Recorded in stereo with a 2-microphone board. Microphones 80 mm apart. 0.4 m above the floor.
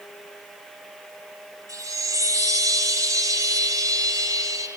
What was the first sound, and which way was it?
A chime, 45° right (ahead or behind).